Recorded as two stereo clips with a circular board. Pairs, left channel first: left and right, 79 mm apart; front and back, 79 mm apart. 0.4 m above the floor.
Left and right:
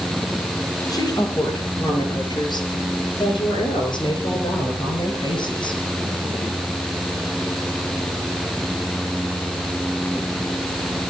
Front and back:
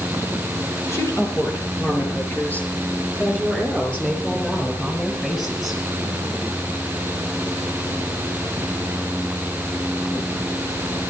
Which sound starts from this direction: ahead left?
A woman speaking, at 0.9 s.